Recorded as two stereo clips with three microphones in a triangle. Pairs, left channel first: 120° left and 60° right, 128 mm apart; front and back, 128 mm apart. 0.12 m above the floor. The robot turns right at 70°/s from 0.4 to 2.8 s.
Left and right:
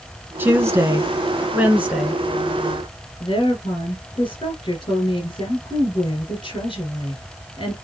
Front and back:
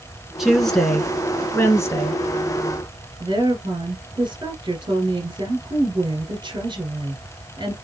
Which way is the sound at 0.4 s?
100° right.